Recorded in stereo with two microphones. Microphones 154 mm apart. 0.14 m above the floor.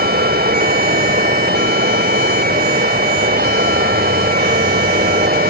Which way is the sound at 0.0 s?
80° right.